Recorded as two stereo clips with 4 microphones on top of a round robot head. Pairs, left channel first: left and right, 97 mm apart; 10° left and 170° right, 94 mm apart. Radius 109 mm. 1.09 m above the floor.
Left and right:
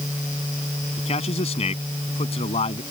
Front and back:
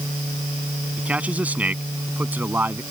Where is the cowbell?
No cowbell in this recording.